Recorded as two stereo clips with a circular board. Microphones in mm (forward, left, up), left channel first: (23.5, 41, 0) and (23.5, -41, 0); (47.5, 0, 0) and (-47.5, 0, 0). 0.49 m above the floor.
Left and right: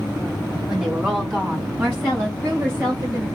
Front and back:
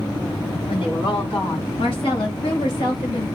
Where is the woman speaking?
10° right, 3 m; by 3.3 s 35° right, 2.5 m.